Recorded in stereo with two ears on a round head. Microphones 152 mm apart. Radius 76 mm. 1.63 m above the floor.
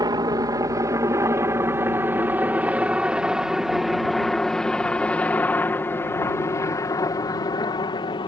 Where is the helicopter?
20° right (ahead or behind); by 8.3 s 30° left (ahead or behind).